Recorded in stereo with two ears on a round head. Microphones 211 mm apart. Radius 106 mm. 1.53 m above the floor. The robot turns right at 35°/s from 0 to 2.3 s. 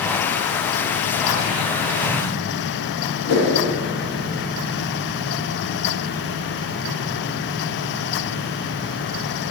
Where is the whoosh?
70° left (ahead or behind), 3 m.